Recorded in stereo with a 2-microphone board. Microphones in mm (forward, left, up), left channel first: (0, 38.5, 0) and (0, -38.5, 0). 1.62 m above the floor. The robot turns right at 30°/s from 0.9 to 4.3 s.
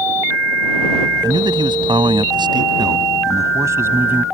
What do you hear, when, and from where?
1.2 s a man speaking: 115° right; by 4.2 s 20° right